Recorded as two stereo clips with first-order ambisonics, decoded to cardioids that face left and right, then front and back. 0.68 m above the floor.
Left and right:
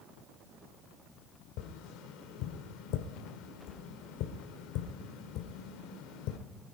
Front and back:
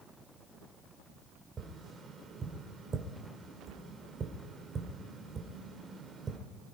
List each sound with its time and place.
1.6 s tapping: 115° left, 1.7 m